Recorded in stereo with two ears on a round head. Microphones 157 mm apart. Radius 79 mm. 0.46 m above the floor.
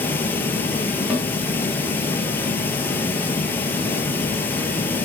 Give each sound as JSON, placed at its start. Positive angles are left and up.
{"t": 0.0, "sound": "running water", "side_deg": 10, "distance_m": 1.0}
{"t": 1.1, "sound": "a snare drum", "side_deg": 0, "distance_m": 2.5}